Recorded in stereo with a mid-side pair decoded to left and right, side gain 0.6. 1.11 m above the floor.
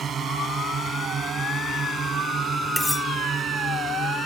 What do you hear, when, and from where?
0.0 s a drone: 40° right; by 4.3 s 30° right
2.8 s cutlery clinking: 10° left